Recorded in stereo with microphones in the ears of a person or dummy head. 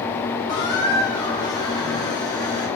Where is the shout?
I don't hear a shout.